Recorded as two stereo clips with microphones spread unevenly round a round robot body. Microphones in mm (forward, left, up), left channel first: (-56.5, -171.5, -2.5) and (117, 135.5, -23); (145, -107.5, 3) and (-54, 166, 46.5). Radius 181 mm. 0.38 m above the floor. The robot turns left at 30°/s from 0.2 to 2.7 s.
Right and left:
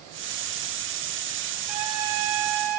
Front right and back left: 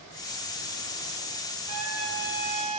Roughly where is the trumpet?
Left.